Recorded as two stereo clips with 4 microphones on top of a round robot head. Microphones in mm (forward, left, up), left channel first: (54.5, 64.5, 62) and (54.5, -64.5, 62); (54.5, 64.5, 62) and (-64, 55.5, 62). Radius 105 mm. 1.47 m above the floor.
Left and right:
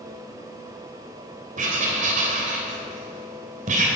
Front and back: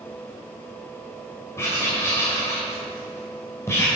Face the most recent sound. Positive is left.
turn(degrees=-70)